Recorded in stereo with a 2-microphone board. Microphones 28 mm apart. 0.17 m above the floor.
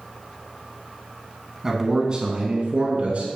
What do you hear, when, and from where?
1.6 s a man speaking: 15° right (ahead or behind), 1.4 m; by 3.3 s 55° right (ahead or behind), 2 m